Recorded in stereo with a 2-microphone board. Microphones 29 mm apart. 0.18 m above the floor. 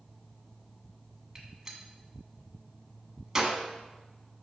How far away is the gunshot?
About 1.1 m.